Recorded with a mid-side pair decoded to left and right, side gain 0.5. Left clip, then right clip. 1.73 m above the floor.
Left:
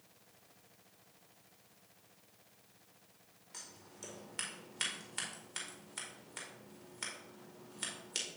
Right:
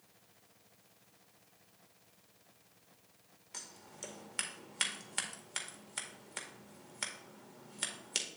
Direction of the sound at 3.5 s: 35° right.